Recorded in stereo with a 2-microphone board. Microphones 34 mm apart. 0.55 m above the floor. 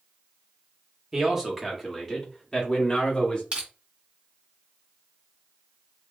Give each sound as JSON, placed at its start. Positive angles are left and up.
{"t": 1.1, "sound": "a man speaking", "side_deg": -15, "distance_m": 1.2}
{"t": 3.5, "sound": "crushing", "side_deg": -35, "distance_m": 1.6}